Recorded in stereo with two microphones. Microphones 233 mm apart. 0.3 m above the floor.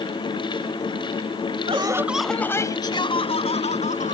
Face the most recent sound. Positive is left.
turn(degrees=30)  # may be behind; listen again after turning